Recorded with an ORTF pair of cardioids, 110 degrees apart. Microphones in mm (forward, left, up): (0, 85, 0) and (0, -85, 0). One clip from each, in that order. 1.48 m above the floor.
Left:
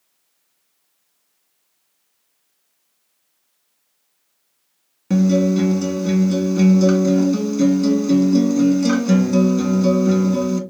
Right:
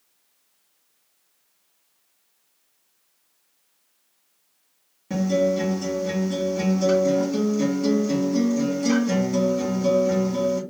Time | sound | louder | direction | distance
5.1 | a guitar | left 3 dB | 40° left | 1.7 m